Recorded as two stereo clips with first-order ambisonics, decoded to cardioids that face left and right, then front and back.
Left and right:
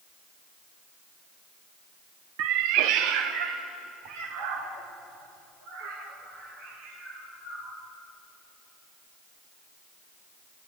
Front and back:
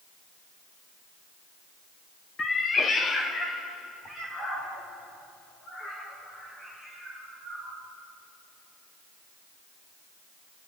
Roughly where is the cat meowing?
Right.